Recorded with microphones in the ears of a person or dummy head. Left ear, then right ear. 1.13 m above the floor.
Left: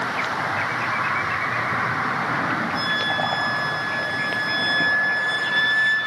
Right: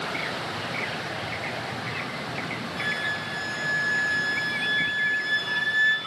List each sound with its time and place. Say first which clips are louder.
2.7 s a flute: left 2 dB; 45° left (ahead or behind), 5.5 m